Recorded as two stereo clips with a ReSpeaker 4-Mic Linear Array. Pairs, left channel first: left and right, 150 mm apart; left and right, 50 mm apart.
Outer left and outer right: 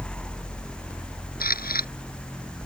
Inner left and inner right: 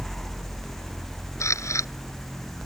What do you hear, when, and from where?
1.4 s a camera shutter: 85° left